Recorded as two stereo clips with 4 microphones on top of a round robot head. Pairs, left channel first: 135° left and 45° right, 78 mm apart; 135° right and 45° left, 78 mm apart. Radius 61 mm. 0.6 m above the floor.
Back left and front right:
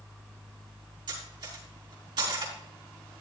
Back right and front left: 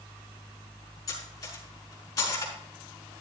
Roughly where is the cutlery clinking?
Right.